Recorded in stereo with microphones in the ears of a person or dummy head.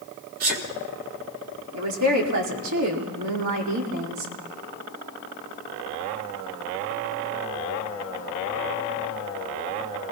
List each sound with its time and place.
0.4 s a sneeze: 50° right (ahead or behind), 3 m
1.7 s a woman speaking: 75° right (ahead or behind), 4.5 m